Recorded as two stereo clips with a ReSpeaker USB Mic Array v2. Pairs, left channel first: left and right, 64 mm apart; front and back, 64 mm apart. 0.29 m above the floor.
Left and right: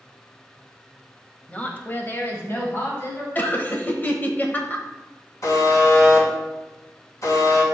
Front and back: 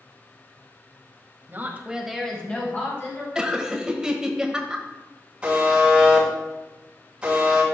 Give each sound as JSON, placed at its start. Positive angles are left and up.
{"t": 1.5, "sound": "a woman speaking", "azimuth_deg": 150, "distance_m": 1.3}
{"t": 3.4, "sound": "laughter", "azimuth_deg": 110, "distance_m": 1.0}
{"t": 5.4, "sound": "a buzzer", "azimuth_deg": 110, "distance_m": 3.0}